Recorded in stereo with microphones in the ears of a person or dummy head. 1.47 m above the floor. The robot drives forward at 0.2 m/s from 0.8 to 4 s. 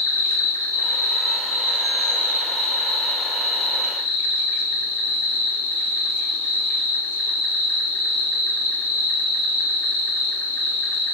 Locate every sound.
0.0 s an insect: 15° left (ahead or behind), 1.1 m; by 11.1 s 10° left (ahead or behind), 1.8 m